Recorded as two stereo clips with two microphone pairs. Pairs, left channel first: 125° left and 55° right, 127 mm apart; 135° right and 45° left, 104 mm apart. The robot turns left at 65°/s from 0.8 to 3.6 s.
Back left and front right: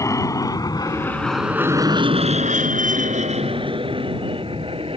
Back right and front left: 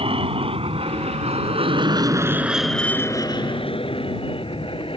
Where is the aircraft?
65° left; by 5.0 s 100° right.